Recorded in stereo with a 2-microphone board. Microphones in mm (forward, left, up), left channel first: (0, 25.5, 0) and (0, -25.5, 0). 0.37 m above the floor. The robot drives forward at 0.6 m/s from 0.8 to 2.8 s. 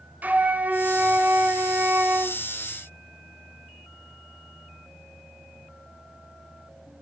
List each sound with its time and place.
0.2 s a flute: 35° right (ahead or behind), 1.1 m